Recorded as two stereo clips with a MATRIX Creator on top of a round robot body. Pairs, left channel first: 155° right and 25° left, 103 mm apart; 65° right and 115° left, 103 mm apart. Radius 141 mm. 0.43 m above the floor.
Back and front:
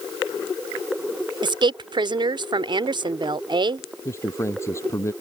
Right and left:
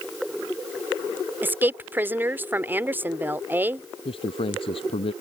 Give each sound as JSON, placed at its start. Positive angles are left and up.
{"t": 1.4, "sound": "a woman speaking", "azimuth_deg": 45}
{"t": 4.0, "sound": "a man speaking", "azimuth_deg": -95}